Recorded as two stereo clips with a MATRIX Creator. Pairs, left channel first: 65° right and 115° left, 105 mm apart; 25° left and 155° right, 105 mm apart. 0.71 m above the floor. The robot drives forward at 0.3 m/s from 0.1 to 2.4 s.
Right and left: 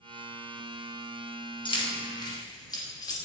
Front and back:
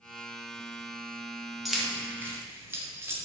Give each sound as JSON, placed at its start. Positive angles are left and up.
{"t": 1.6, "sound": "keys jangling", "azimuth_deg": -70, "distance_m": 0.5}